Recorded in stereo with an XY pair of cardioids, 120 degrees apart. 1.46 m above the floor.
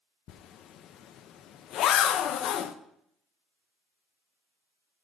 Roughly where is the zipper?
Ahead left.